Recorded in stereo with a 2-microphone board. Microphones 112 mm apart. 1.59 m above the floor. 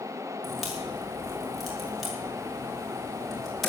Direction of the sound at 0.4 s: Centre (ahead or behind).